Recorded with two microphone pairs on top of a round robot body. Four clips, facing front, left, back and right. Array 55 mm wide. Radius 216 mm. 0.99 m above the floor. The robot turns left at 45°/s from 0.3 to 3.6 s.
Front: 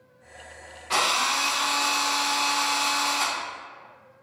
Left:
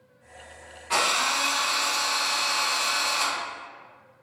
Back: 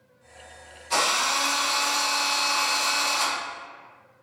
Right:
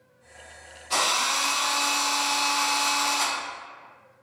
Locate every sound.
0.9 s a drill: 45° left, 0.7 m; by 3.4 s 65° right, 0.7 m